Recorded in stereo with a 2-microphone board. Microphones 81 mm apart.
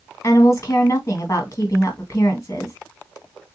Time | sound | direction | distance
0.2 | a woman speaking | 40° left (ahead or behind) | 1.8 m